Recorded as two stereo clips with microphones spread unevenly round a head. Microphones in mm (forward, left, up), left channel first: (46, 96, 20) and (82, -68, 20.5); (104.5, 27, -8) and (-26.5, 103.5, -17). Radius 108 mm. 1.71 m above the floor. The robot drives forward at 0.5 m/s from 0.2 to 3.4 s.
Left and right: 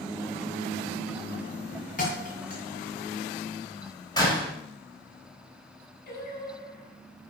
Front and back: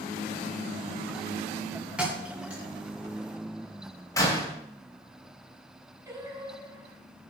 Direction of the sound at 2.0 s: 65° left.